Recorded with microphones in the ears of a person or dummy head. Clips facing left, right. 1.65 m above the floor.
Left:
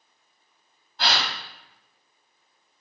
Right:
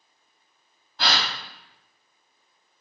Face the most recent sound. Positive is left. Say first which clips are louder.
# even
turn(degrees=-60)  # may be behind; listen again after turning